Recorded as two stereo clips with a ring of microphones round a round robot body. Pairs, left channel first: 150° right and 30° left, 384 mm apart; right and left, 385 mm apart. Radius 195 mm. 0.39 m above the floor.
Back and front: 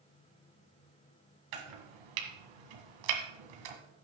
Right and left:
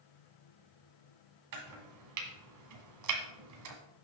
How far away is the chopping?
About 1.6 m.